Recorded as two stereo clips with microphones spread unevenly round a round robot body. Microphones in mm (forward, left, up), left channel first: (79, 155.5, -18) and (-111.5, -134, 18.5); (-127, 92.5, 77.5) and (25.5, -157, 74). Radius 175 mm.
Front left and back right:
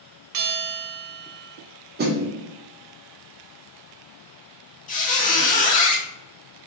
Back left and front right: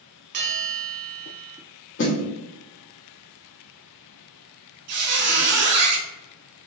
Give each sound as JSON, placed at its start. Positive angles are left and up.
{"t": 0.3, "sound": "a bell", "azimuth_deg": -90, "distance_m": 0.8}
{"t": 2.0, "sound": "a snare drum", "azimuth_deg": 170, "distance_m": 1.0}
{"t": 4.9, "sound": "a squeak", "azimuth_deg": -15, "distance_m": 0.6}